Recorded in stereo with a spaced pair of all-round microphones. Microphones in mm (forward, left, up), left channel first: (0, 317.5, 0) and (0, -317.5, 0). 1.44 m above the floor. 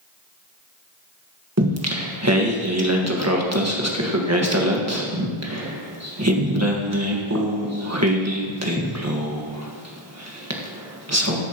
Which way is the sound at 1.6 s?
25° right (ahead or behind).